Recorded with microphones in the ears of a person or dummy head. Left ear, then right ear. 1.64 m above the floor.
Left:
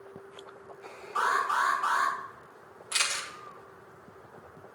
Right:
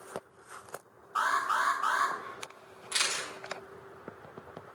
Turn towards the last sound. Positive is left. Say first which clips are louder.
# left 1 dB
turn(degrees=10)  # may be behind; listen again after turning